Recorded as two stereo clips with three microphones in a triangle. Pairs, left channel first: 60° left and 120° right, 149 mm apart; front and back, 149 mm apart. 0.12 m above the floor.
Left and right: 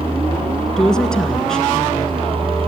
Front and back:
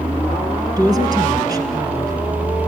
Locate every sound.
0.8 s a woman speaking: 140° left, 1.8 m